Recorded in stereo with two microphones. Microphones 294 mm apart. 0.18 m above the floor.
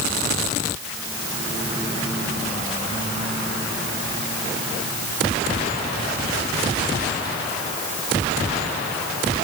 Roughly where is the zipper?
I don't hear a zipper.